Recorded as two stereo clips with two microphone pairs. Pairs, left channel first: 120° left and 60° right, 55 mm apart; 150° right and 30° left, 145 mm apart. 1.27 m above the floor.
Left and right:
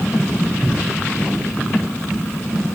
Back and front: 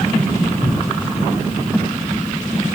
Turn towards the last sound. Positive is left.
turn(degrees=35)